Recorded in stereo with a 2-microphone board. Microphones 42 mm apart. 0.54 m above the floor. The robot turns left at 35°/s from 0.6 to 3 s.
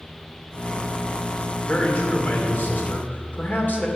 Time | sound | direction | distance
1.7 | a man speaking | 125° left | 1.9 m